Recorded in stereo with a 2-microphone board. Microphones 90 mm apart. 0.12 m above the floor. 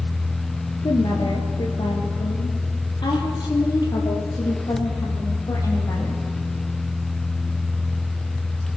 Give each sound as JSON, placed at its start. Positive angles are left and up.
{"t": 0.8, "sound": "a woman speaking", "side_deg": 55, "distance_m": 3.0}